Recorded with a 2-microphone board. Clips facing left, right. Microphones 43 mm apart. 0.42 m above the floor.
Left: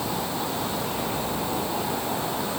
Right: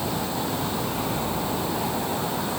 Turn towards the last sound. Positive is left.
No sound to turn to.